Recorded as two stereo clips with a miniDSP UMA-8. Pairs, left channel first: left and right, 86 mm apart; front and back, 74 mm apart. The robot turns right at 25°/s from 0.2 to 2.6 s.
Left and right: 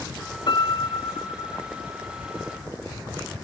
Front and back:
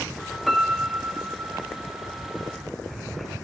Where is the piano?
90° left, 0.9 m; by 1.7 s 120° left, 0.9 m.